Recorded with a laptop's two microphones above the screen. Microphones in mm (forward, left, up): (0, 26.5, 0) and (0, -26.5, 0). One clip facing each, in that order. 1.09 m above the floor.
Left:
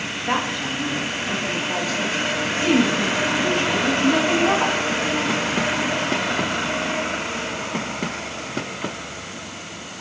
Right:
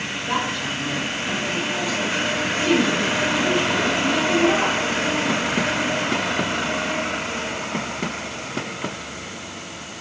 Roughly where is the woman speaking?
Left.